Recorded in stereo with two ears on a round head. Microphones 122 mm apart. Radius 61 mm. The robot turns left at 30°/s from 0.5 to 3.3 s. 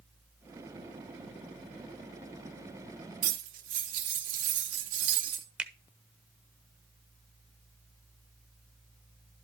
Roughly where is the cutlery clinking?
Right.